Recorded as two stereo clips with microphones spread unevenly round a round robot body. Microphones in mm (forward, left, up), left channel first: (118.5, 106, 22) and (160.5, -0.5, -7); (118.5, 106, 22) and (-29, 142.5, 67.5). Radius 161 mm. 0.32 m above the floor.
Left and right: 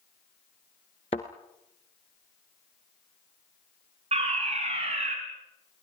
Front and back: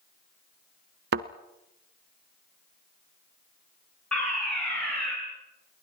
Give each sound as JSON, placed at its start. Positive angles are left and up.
{"t": 1.1, "sound": "a thud", "azimuth_deg": 180, "distance_m": 0.8}
{"t": 4.1, "sound": "a fire alarm", "azimuth_deg": -90, "distance_m": 5.0}